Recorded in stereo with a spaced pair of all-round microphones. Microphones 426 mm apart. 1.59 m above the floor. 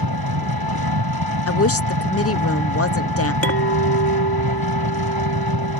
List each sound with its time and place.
0.0 s an engine running: 65° right (ahead or behind)
1.5 s a woman speaking: 35° left (ahead or behind)
3.4 s a clink: 35° left (ahead or behind)